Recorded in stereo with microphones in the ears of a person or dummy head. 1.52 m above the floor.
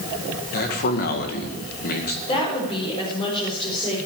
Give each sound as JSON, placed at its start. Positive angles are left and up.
{"t": 0.5, "sound": "a man speaking", "side_deg": 50, "distance_m": 2.0}
{"t": 2.3, "sound": "a woman speaking", "side_deg": 25, "distance_m": 5.0}